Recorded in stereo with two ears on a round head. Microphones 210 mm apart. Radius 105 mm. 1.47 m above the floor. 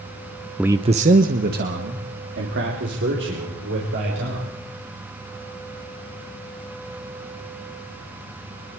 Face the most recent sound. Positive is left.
turn(degrees=-50)  # may be behind; listen again after turning